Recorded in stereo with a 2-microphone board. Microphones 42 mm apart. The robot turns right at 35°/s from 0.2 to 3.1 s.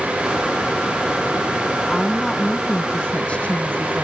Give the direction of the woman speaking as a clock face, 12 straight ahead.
12 o'clock.